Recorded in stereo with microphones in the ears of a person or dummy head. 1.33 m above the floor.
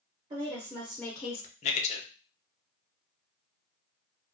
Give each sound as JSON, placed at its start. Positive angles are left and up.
{"t": 0.3, "sound": "a woman speaking", "side_deg": -25, "distance_m": 0.8}
{"t": 1.6, "sound": "a man speaking", "side_deg": 35, "distance_m": 0.7}